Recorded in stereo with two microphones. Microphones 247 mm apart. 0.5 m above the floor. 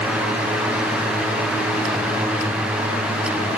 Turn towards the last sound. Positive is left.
No sound to turn to.